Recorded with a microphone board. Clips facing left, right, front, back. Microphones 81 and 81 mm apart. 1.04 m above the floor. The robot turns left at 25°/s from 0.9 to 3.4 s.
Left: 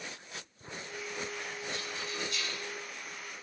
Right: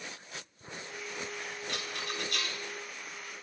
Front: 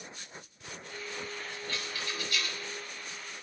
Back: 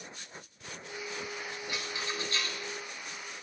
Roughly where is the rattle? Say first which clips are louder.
Right 3 dB, back 1 dB; right.